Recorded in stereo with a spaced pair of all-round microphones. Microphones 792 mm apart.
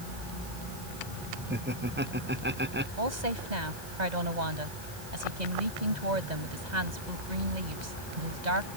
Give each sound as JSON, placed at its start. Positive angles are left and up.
{"t": 1.5, "sound": "laughter", "side_deg": -10}
{"t": 3.0, "sound": "a woman speaking", "side_deg": -55}